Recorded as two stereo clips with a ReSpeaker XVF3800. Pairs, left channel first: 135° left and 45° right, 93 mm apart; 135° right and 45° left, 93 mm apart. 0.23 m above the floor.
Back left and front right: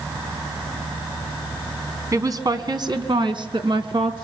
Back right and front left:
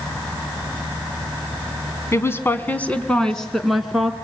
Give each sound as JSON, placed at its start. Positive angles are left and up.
{"t": 2.1, "sound": "a woman speaking", "azimuth_deg": -85, "distance_m": 1.6}